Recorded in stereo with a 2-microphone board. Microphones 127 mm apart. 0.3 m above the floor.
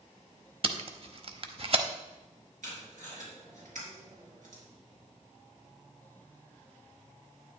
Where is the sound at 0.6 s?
50° right (ahead or behind), 0.7 m.